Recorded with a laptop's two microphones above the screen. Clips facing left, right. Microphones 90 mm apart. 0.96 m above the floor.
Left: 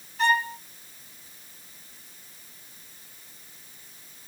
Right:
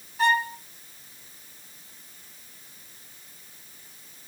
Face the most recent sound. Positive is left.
turn(degrees=-10)  # may be behind; listen again after turning